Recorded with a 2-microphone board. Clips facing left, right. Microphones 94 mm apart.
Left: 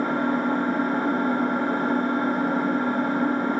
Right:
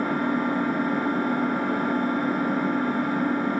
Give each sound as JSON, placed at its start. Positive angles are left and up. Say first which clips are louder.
{"t": 0.0, "sound": "an engine running", "louder": "left 1 dB", "side_deg": 30, "distance_m": 6.5}